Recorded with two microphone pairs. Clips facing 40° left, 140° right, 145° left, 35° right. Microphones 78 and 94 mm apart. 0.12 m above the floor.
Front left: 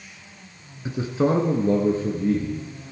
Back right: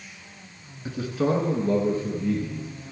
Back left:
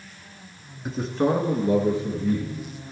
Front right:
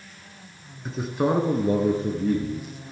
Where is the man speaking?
65° left, 1.1 m; by 2.9 s 20° right, 2.5 m.